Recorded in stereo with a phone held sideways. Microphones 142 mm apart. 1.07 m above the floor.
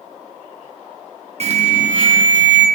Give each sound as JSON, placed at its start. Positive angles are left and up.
{"t": 1.4, "sound": "an alarm", "side_deg": -50, "distance_m": 0.7}